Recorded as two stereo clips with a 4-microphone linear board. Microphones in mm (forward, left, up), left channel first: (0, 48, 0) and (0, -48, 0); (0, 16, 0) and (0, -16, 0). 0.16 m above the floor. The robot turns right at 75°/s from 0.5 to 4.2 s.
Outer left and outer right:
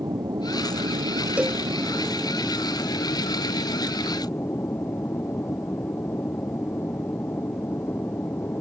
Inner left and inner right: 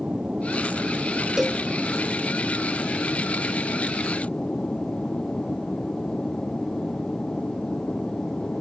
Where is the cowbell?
15° right (ahead or behind); by 1.6 s 5° left (ahead or behind).